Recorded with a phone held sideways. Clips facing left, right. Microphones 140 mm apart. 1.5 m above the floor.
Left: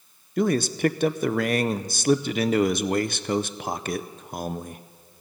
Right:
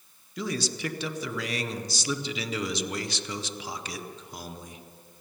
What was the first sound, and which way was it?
A man speaking, 55° left (ahead or behind).